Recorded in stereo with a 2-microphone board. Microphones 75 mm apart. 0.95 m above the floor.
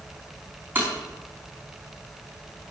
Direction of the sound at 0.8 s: 25° right (ahead or behind).